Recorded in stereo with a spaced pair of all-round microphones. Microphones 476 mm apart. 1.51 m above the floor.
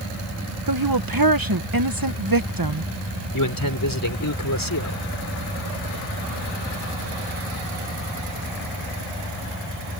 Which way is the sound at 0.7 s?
45° right (ahead or behind).